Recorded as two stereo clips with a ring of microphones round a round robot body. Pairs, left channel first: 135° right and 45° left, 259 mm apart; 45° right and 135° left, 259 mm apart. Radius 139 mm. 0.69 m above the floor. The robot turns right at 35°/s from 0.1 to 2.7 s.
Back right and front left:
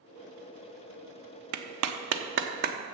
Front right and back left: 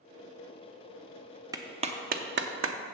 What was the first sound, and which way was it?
A clap, 60° left.